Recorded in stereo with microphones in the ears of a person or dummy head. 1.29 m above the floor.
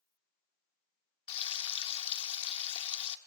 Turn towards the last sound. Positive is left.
turn(degrees=35)  # may be behind; listen again after turning